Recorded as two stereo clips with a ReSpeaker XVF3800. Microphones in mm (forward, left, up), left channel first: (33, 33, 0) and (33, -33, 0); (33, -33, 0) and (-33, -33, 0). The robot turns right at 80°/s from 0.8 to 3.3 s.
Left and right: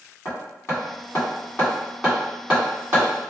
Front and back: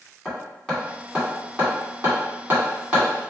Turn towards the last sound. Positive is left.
turn(degrees=-90)